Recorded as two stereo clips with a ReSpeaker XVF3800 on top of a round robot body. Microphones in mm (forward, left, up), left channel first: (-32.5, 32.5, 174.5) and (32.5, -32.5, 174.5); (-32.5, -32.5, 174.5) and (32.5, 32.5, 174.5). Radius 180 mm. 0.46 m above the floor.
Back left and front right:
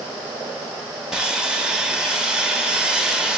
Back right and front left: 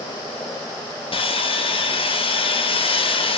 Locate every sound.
1.1 s sawing: 125° right, 0.7 m